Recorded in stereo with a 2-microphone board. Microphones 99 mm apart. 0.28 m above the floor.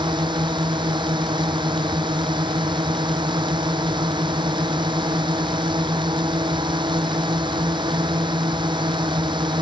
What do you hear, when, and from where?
0.0 s a drone: 50° right (ahead or behind)